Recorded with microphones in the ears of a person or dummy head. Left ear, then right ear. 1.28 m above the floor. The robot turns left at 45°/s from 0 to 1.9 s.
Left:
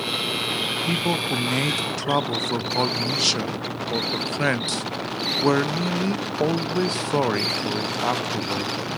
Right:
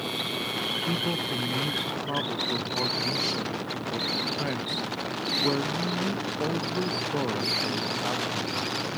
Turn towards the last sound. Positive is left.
turn(degrees=95)